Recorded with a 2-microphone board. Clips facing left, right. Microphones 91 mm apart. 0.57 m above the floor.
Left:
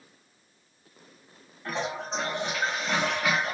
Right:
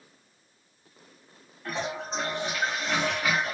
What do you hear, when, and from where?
1.6 s a toilet flushing: centre (ahead or behind), 1.3 m